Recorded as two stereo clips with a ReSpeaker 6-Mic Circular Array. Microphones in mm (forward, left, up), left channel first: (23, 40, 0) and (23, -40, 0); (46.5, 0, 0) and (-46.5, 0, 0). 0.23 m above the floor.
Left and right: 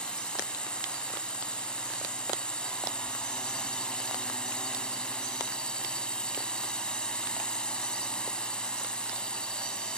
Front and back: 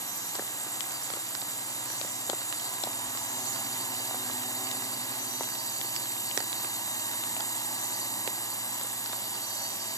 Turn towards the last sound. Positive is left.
turn(degrees=20)